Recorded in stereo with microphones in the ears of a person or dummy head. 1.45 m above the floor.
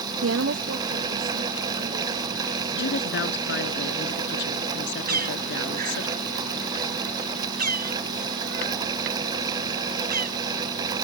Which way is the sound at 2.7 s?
65° left (ahead or behind).